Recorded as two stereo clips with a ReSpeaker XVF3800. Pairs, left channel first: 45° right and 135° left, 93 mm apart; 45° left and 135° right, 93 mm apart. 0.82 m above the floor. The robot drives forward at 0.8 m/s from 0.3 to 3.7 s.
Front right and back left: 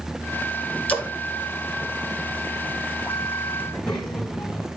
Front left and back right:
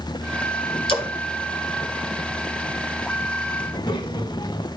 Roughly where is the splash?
Ahead left.